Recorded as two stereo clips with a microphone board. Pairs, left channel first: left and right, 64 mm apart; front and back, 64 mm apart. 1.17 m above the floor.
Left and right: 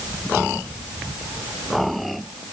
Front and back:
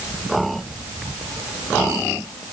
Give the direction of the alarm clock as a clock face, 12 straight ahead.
No alarm clock in this recording.